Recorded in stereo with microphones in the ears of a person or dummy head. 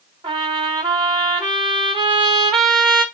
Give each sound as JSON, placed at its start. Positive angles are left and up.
{"t": 0.2, "sound": "a trumpet", "side_deg": -15, "distance_m": 0.9}